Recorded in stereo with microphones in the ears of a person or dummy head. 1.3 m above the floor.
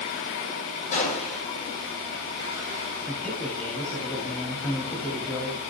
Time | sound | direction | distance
0.9 | a gunshot | 40° left (ahead or behind) | 9 m
3.1 | a man speaking | 15° left (ahead or behind) | 3 m